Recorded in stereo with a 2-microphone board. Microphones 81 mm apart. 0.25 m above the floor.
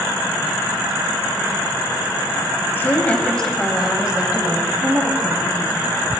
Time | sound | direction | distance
2.8 | a woman speaking | 25° left (ahead or behind) | 1.9 m